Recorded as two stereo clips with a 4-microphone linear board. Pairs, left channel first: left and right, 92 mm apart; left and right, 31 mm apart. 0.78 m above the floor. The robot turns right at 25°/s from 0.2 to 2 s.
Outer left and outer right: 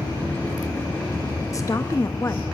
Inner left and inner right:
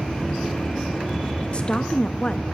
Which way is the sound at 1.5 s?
35° left (ahead or behind).